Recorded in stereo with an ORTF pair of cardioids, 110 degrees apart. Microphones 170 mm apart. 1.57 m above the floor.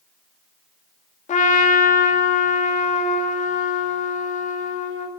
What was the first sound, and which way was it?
A trumpet, 50° left.